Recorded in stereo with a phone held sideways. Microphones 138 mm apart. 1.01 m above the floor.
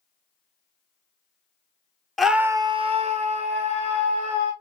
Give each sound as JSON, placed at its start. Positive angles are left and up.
{"t": 2.2, "sound": "a scream", "side_deg": 0, "distance_m": 0.8}